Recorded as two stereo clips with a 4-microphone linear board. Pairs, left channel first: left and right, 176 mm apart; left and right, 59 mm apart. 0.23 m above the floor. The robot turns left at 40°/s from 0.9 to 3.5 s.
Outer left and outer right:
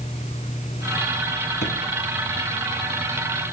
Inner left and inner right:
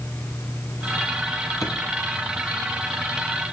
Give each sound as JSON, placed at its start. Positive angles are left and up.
{"t": 1.6, "sound": "a drawer", "side_deg": 70, "distance_m": 2.0}